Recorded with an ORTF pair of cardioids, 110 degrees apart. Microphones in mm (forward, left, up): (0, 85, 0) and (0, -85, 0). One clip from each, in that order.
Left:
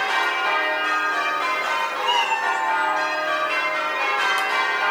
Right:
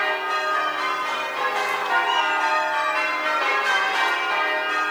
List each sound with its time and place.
2.0 s a cat meowing: 45° left, 2.5 m; by 3.1 s 55° left, 2 m